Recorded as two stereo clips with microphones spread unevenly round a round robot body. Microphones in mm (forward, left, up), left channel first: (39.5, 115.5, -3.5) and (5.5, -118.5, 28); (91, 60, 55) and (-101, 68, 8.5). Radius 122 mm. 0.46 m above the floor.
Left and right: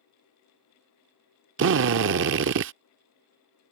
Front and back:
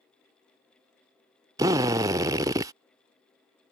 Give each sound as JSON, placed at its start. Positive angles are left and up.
{"t": 1.6, "sound": "a drill", "azimuth_deg": -125}